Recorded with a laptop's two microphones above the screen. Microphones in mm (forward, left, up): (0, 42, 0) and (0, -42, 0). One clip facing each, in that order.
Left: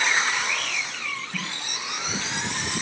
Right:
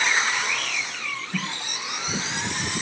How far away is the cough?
About 5.5 m.